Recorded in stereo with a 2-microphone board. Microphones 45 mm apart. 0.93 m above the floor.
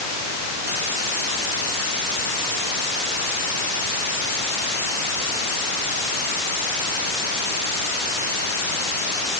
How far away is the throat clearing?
No throat clearing in this recording.